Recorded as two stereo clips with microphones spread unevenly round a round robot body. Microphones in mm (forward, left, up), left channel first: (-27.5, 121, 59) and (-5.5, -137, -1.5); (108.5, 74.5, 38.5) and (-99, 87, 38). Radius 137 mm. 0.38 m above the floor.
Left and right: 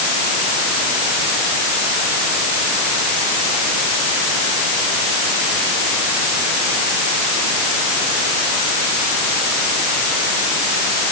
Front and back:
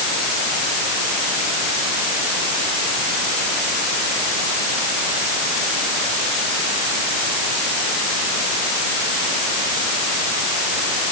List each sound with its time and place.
Only background noise.